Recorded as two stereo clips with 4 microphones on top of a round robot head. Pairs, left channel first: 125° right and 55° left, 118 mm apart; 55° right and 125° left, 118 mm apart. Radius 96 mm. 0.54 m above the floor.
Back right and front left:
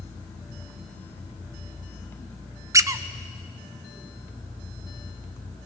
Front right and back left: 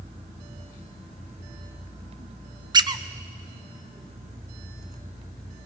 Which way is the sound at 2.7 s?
100° left.